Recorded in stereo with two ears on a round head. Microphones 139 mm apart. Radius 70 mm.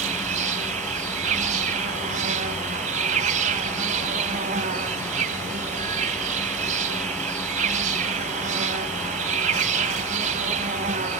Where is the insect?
50° right (ahead or behind), 1.3 m.